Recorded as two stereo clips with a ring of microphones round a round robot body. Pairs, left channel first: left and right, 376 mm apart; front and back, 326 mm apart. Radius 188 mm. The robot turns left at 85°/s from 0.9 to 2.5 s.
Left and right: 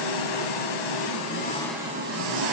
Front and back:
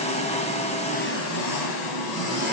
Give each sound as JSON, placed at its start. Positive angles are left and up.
{"t": 0.0, "sound": "an engine running", "azimuth_deg": 70, "distance_m": 1.6}